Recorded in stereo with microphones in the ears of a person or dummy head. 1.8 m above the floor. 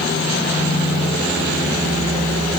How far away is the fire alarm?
I don't hear a fire alarm.